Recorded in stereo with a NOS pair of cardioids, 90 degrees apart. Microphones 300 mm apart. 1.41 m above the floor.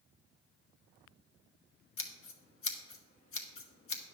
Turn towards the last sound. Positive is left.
turn(degrees=45)